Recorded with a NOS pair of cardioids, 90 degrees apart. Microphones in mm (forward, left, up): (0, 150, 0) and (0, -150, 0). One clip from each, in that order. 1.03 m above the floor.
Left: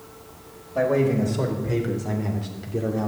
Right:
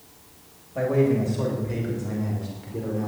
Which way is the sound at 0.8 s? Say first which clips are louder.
Left 1 dB; 30° left.